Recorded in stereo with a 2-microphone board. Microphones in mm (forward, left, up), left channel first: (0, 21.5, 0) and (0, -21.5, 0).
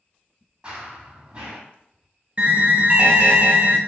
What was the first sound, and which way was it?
Running footsteps, 25° right (ahead or behind).